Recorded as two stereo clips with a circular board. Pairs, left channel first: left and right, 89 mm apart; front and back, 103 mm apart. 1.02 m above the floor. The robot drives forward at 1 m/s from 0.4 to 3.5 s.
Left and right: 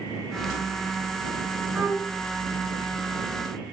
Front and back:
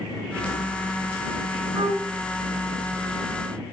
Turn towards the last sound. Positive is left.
turn(degrees=-165)